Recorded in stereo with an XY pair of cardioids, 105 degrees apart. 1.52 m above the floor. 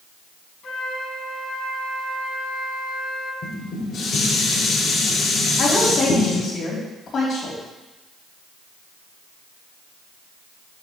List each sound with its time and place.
0.6 s a flute: 55° left, 4 m
3.4 s dishes clattering: 60° left, 3.5 m
5.6 s a woman speaking: 55° left, 4.5 m